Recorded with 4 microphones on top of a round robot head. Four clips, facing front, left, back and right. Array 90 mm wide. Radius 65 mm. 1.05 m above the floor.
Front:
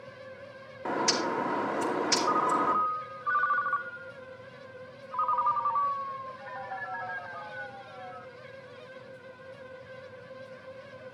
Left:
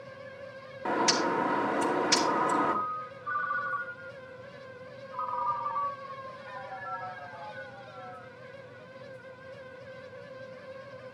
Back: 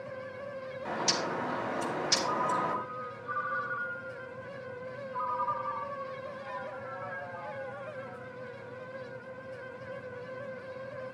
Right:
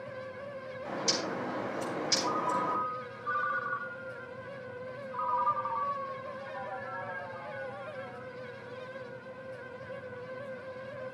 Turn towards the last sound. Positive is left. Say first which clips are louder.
# left 4 dB, front 4 dB
turn(degrees=-5)